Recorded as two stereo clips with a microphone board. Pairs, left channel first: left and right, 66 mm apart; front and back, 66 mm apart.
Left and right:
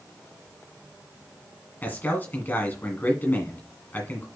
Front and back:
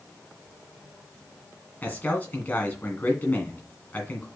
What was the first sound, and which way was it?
A man speaking, 45° left.